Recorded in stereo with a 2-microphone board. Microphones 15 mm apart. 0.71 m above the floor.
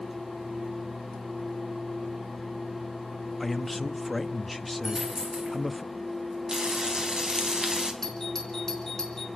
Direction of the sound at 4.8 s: 40° right (ahead or behind).